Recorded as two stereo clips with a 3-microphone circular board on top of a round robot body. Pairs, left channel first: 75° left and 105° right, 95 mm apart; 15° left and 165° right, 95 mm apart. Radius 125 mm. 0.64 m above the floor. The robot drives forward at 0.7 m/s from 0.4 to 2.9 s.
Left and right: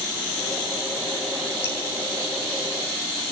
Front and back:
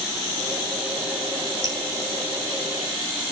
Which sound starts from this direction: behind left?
Dripping, at 1.6 s.